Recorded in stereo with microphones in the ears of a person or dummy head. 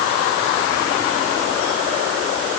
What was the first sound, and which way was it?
Only background noise.